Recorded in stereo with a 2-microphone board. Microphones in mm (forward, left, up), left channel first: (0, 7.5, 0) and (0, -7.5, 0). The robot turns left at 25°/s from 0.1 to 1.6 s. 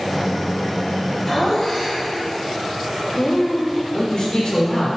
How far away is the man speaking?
About 3 m.